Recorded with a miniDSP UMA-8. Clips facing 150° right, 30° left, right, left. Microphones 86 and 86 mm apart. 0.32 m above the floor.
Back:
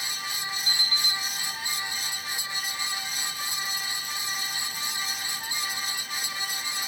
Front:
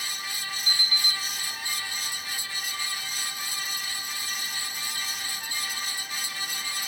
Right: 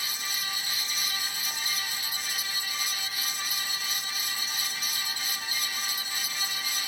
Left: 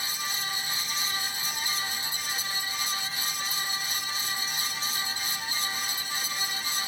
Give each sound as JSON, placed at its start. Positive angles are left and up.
{"t": 0.7, "sound": "an alarm clock", "azimuth_deg": -100, "distance_m": 5.5}